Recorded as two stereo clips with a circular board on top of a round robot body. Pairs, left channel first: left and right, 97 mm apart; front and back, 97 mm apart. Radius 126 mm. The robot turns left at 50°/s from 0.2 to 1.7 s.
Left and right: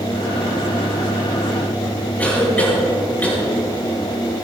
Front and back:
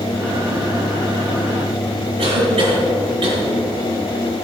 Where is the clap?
I don't hear a clap.